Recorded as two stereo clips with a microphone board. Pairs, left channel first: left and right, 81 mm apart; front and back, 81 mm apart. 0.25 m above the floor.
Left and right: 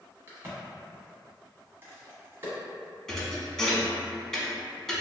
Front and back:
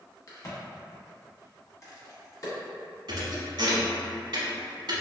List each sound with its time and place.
0.3 s a crack: 35° right, 1.3 m
3.1 s a thud: 175° left, 0.8 m